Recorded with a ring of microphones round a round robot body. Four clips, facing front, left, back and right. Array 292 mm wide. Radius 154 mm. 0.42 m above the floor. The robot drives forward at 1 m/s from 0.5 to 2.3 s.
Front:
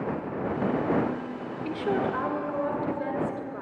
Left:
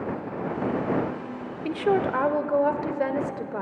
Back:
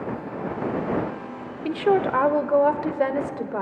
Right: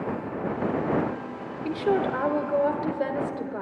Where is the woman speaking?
160° left, 0.9 m; by 3.6 s 170° left, 1.4 m.